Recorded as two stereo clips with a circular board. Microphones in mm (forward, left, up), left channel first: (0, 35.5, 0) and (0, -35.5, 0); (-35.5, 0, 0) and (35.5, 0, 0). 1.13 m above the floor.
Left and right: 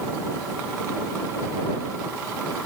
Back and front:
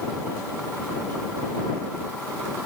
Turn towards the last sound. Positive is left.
No sound to turn to.